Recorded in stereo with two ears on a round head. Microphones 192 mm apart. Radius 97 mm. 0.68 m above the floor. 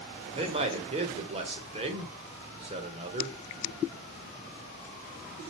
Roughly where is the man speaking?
Right.